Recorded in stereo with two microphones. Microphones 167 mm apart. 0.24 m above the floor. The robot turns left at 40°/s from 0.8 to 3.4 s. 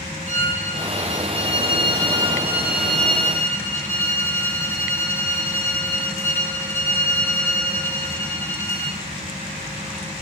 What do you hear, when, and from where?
0.3 s a violin: 95° right, 2 m; by 9.0 s 160° left, 2 m